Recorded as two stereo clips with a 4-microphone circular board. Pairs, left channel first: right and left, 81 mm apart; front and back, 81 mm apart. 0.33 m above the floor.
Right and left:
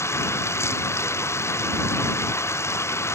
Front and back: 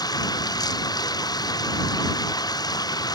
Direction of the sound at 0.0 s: 35° right.